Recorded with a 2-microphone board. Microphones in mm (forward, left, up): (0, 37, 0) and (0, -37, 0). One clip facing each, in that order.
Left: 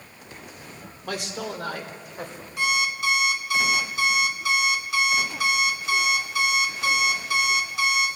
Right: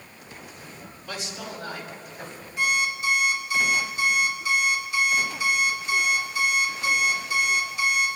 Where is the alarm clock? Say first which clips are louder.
Even; 75° left (ahead or behind), 1.9 m.